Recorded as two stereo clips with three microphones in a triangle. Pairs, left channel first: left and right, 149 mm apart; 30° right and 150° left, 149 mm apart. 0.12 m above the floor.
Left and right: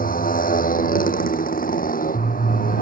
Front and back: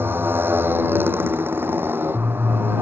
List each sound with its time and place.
0.0 s a motorcycle: 75° left